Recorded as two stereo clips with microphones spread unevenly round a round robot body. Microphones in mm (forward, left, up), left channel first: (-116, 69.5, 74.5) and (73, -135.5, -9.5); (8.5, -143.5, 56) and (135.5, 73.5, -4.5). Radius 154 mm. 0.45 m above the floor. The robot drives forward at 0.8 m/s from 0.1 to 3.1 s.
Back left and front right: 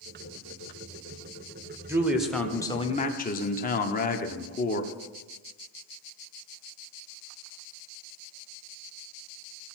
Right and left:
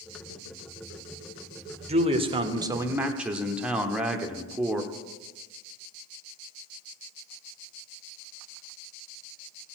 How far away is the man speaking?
About 1.4 m.